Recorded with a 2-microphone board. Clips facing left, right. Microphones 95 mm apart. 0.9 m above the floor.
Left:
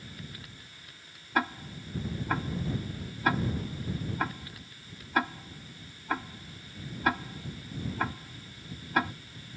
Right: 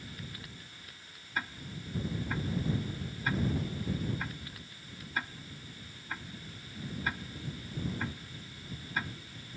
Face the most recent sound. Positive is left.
turn(degrees=70)  # may be behind; listen again after turning